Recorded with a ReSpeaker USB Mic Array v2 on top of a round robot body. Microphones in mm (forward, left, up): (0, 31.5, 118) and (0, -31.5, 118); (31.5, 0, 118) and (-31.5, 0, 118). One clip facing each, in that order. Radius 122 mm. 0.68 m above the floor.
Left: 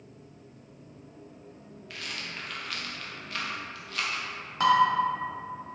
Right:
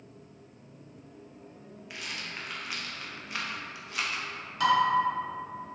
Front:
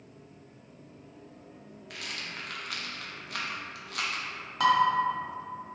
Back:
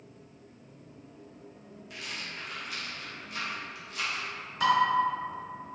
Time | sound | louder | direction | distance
1.9 | a rattle | left 1 dB, front 1 dB | 15° right | 0.6 m
4.6 | dishes clattering | left 2 dB, front 2 dB | 30° left | 1.1 m